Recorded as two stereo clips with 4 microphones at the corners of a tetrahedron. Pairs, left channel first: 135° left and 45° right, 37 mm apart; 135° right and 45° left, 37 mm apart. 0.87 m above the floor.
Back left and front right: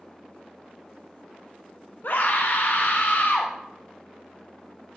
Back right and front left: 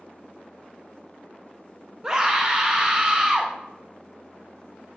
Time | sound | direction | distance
2.0 | a scream | 115° left | 0.7 m